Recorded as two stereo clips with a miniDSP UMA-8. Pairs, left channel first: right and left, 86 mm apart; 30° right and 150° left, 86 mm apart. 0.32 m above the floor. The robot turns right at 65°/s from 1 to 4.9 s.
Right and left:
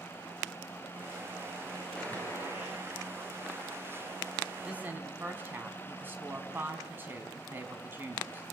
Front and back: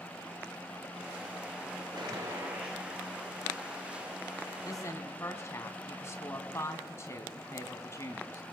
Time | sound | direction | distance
1.9 | a gunshot | 175° right | 6.5 m
4.7 | a woman speaking | 10° left | 3 m